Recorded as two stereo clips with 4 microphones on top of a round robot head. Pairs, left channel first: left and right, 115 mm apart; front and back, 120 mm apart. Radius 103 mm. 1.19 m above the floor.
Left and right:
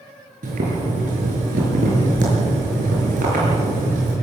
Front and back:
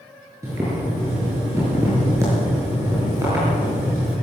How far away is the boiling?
About 6.5 m.